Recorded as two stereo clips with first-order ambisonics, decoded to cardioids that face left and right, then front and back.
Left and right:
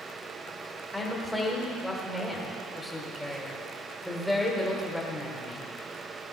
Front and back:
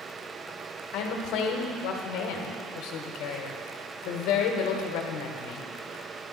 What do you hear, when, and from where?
0.9 s a woman speaking: straight ahead, 1.5 m